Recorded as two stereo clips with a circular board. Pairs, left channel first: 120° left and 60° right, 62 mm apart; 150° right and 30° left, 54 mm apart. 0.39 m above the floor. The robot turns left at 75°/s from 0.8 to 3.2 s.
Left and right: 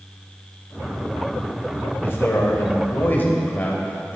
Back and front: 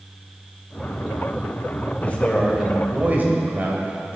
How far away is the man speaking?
About 1.6 m.